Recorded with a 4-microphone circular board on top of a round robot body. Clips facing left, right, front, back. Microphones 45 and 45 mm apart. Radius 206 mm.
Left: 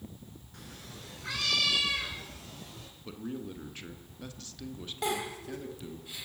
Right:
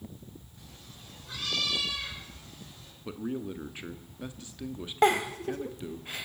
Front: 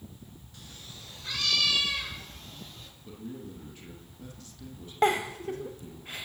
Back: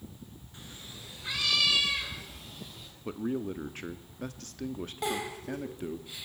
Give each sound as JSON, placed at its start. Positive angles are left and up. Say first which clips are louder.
{"t": 0.5, "sound": "a cat meowing", "louder": "left 4 dB, back 2 dB", "azimuth_deg": 115, "distance_m": 2.5}
{"t": 3.0, "sound": "a man speaking", "louder": "right 4 dB, back 9 dB", "azimuth_deg": -160, "distance_m": 1.5}
{"t": 5.0, "sound": "a giggle", "louder": "right 9 dB, front 9 dB", "azimuth_deg": -45, "distance_m": 1.0}